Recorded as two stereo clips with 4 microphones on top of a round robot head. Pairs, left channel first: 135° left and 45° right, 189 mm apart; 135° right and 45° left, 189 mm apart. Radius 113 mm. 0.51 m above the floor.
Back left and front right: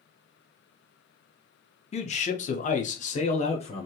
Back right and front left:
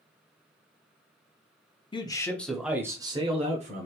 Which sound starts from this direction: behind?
A man speaking, at 1.9 s.